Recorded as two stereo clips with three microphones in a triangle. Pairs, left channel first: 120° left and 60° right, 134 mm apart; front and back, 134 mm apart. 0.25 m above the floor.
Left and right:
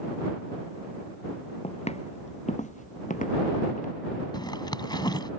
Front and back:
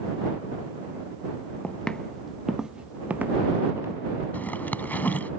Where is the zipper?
75° left.